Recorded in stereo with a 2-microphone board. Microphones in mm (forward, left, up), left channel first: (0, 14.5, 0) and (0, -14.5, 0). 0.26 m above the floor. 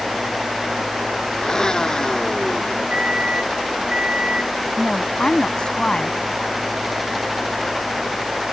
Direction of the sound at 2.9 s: 40° right (ahead or behind).